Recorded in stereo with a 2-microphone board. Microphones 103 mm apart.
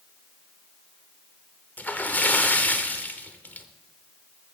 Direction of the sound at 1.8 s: 15° left (ahead or behind).